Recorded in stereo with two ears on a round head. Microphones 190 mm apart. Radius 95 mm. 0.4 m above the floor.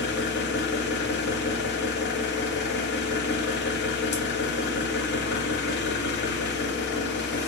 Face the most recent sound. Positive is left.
turn(degrees=50)  # may be behind; listen again after turning